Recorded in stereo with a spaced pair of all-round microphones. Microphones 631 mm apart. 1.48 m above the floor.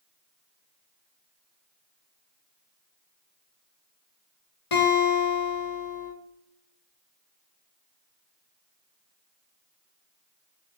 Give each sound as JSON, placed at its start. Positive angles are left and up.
{"t": 4.7, "sound": "a guitar", "side_deg": 55, "distance_m": 0.9}